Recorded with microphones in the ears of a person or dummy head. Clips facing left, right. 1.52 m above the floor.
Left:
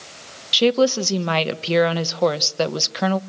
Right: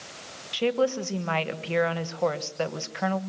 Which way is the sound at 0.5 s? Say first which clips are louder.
Left 7 dB; 55° left (ahead or behind).